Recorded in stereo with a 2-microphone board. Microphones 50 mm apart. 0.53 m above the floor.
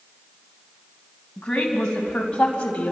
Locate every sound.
1.4 s a woman speaking: 15° left (ahead or behind), 4.5 m; by 2.9 s 25° left (ahead or behind), 3.5 m